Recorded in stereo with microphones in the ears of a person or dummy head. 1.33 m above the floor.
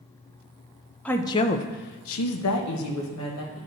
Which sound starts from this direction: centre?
A woman speaking, at 1.1 s.